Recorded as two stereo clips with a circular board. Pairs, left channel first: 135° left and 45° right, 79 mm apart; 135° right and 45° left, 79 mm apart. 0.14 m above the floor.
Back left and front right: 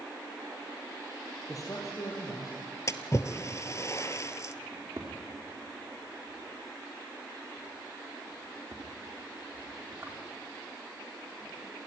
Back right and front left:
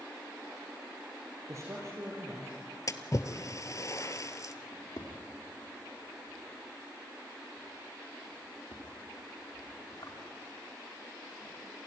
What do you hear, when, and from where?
1.5 s a man speaking: 95° left, 3.5 m; by 2.6 s 100° left, 4 m
2.9 s a splash: 175° right, 0.9 m
4.7 s a drawer: 110° right, 5 m